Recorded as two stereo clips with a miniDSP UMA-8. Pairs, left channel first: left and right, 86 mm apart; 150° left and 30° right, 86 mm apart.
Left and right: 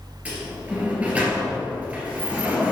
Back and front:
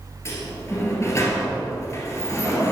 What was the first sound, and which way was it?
A sliding door, 160° right.